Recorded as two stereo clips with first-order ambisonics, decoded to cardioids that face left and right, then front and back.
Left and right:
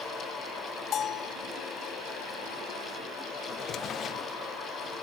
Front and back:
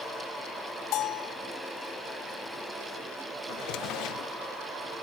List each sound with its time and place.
0.9 s a bell: 35° left, 1.1 m
3.5 s a drawer: 30° left, 0.9 m